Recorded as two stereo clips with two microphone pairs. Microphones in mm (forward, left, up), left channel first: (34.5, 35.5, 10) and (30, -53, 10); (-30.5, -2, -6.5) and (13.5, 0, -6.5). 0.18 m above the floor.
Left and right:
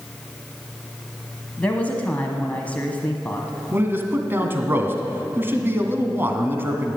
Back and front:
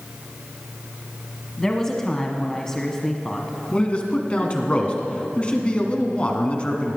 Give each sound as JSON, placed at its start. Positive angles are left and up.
{"t": 1.6, "sound": "a woman speaking", "azimuth_deg": 130, "distance_m": 1.2}
{"t": 3.7, "sound": "a man speaking", "azimuth_deg": -140, "distance_m": 1.7}